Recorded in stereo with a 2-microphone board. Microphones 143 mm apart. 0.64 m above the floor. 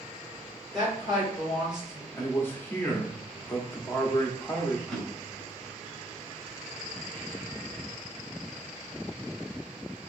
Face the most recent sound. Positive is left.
turn(degrees=5)  # may be behind; listen again after turning